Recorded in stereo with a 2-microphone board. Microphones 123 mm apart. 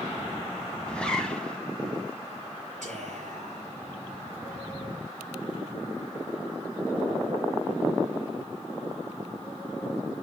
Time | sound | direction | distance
0.9 | a zipper | 10° left (ahead or behind) | 2 m
2.8 | whispering | 75° right (ahead or behind) | 6.5 m